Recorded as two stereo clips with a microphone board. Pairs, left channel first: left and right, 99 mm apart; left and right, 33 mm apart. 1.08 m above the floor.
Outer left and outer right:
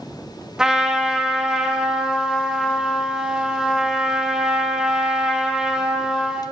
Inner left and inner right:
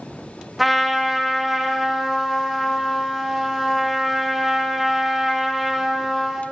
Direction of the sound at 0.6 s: 5° right (ahead or behind).